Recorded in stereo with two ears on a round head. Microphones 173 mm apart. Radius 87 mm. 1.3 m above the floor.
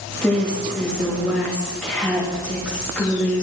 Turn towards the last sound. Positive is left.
turn(degrees=5)  # may be behind; listen again after turning